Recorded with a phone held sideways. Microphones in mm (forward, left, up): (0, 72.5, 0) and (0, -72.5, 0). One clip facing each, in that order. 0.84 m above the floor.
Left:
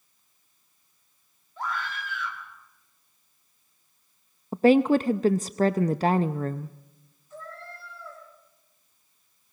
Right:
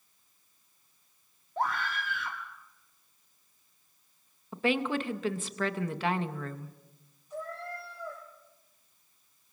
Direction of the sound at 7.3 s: 15° right (ahead or behind).